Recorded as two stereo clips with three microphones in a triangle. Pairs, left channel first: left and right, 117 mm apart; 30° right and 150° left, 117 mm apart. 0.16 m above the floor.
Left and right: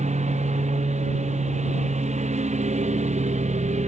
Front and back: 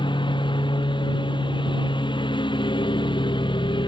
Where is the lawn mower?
80° right.